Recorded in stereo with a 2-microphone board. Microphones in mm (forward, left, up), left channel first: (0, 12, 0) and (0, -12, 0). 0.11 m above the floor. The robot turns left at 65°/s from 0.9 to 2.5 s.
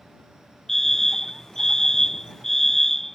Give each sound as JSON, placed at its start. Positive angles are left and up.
{"t": 0.7, "sound": "a fire alarm", "side_deg": 15}